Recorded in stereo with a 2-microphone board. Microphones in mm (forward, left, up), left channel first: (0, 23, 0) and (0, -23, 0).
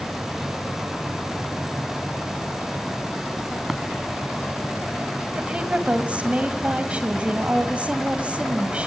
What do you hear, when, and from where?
3.7 s tapping: 15° right (ahead or behind), 1.0 m
5.4 s a woman speaking: 25° right (ahead or behind), 2 m